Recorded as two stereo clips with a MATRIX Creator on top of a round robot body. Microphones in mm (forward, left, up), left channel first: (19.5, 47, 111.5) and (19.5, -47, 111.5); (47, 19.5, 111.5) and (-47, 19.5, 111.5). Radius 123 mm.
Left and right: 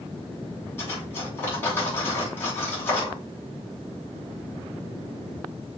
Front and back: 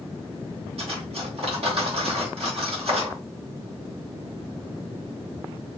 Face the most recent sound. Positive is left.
turn(degrees=160)